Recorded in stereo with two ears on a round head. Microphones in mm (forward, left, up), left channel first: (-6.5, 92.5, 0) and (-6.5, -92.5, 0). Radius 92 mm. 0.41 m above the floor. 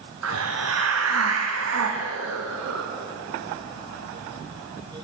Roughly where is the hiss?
Right.